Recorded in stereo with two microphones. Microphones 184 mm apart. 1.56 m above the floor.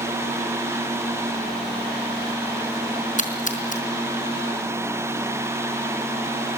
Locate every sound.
3.2 s a splash: 45° left (ahead or behind), 4 m